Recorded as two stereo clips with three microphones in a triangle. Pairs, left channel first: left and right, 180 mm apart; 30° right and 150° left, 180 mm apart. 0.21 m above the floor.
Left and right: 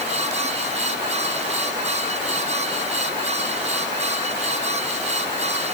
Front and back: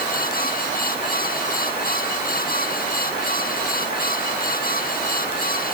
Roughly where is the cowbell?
I don't hear a cowbell.